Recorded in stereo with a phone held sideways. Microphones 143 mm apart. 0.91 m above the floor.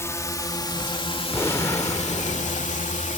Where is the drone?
20° left (ahead or behind); by 3.2 s 60° left (ahead or behind).